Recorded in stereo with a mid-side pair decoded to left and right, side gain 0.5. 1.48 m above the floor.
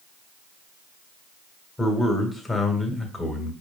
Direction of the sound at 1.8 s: 20° left.